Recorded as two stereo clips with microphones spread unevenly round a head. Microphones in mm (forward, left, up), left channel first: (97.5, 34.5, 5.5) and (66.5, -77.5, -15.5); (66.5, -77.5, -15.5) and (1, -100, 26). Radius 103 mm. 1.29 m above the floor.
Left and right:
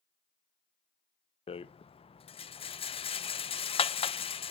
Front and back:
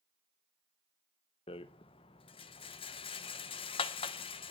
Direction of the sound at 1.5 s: 40° left.